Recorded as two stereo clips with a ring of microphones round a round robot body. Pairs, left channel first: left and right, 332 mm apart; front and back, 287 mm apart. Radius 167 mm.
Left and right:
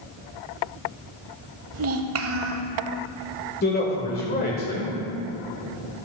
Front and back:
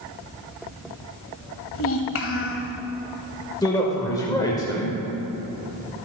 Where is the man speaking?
65° left, 1.6 m.